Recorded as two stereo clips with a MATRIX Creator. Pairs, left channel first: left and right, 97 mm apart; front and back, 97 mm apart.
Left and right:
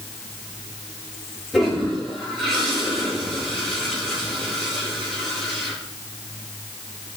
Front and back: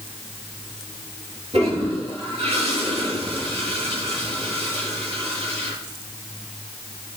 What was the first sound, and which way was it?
A toilet flushing, 175° left.